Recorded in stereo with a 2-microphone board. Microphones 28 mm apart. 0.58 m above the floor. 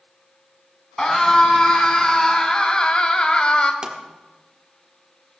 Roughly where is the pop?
Right.